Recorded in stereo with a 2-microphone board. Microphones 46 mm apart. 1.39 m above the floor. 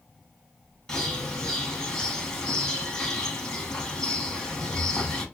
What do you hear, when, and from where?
0.9 s a bird: 10° left (ahead or behind), 1.7 m